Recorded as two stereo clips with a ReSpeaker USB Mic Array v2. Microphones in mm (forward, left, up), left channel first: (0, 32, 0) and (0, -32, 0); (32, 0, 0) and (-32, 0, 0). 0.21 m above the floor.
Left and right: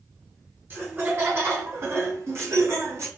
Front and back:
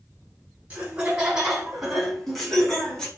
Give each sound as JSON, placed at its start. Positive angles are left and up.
{"t": 0.7, "sound": "laughter", "azimuth_deg": -125, "distance_m": 2.0}